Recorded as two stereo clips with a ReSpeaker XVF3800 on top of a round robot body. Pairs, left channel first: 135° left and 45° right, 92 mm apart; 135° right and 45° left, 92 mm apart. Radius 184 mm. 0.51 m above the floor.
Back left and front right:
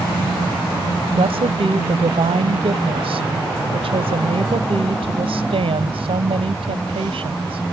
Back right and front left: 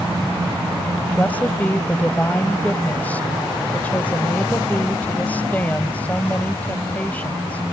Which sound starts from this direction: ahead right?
A woman speaking, at 1.2 s.